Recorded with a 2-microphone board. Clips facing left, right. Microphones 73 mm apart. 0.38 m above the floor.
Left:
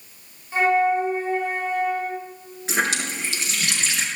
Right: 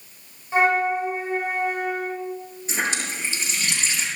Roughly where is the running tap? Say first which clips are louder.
Left 3 dB; left.